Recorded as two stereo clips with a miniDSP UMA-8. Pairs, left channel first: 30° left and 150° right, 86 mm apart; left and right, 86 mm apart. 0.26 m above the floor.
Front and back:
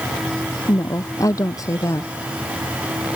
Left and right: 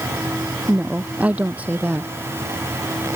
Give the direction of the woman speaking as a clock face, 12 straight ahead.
1 o'clock.